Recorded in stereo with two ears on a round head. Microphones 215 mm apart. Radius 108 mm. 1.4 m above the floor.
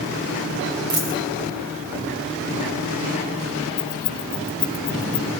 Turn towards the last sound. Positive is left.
turn(degrees=25)  # may be behind; listen again after turning